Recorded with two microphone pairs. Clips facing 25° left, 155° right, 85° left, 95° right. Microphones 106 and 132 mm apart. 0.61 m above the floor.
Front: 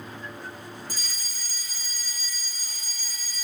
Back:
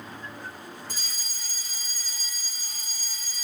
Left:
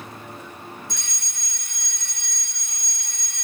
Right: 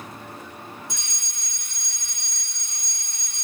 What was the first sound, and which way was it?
A fire alarm, 140° right.